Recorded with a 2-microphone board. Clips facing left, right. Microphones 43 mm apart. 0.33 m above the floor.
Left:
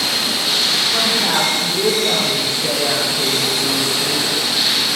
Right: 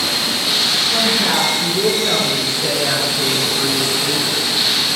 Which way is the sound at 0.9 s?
75° right (ahead or behind).